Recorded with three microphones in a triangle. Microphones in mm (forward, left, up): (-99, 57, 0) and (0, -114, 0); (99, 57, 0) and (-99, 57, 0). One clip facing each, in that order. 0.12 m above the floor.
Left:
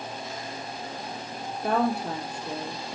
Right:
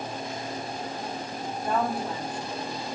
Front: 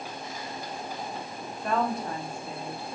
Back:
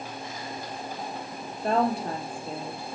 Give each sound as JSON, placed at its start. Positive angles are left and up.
{"t": 1.6, "sound": "a woman speaking", "azimuth_deg": 125, "distance_m": 3.0}